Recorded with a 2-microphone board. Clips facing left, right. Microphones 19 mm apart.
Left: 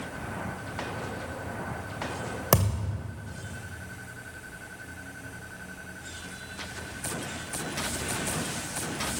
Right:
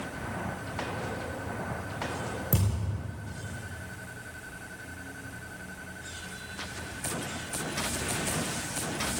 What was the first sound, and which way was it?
A thud, 85° left.